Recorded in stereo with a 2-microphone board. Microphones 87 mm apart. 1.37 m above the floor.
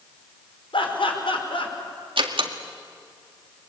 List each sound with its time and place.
0.7 s laughter: 85° left, 5 m
2.2 s a door slam: 80° right, 1.9 m